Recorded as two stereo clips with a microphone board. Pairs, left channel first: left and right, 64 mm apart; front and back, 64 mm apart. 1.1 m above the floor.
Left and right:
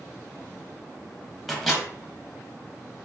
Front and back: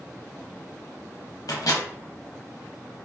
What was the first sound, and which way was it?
A microwave, 5° left.